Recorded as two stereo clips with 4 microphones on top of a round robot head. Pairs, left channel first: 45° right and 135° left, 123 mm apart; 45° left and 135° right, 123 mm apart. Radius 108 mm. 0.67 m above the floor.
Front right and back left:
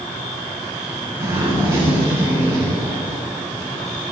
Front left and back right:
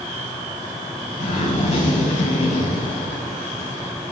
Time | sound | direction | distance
1.2 | a zipper | 65° left | 6.5 m